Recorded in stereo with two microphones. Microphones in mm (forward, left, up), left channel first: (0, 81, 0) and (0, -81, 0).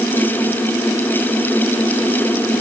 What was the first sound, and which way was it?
Only background noise.